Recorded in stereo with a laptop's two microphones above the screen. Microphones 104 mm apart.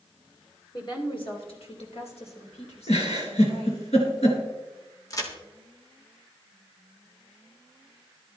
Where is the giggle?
80° left, 3.5 m.